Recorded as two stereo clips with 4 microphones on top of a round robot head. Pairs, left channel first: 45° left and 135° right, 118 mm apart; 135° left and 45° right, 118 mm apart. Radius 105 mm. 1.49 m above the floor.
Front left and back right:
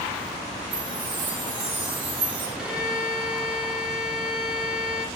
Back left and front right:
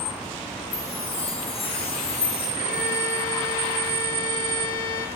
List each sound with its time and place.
0.7 s a chime: 175° left, 4.5 m
2.6 s a violin: 145° left, 5 m